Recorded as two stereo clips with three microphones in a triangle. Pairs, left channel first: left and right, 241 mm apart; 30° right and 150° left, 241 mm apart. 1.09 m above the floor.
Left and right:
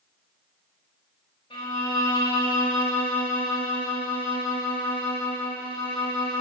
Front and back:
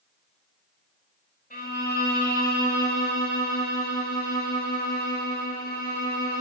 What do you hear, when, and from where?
1.5 s a violin: 20° left, 5 m